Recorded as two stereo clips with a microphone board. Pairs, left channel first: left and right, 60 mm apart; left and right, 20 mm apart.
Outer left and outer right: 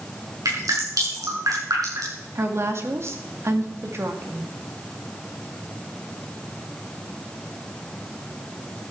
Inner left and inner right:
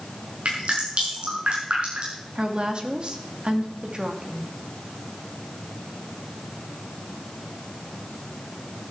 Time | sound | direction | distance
0.5 | dripping | 80° right | 6.5 m
2.4 | a woman speaking | 50° right (ahead or behind) | 2 m